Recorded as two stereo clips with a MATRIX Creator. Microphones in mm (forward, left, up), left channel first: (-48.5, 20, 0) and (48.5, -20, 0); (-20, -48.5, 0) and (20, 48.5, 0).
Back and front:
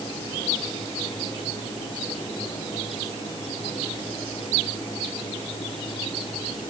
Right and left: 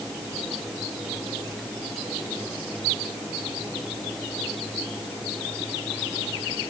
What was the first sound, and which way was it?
Only background noise.